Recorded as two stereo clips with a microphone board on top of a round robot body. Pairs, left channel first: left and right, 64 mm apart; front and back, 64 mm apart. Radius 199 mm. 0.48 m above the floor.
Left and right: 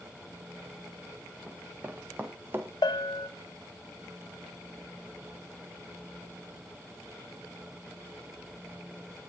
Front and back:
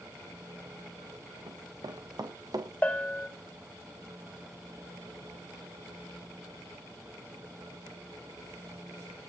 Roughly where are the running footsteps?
Behind.